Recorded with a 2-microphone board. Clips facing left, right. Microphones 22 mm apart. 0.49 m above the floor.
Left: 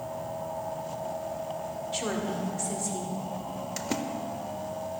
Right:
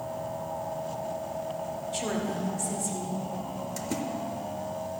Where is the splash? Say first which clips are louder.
Left 2 dB; 30° left (ahead or behind), 0.5 m.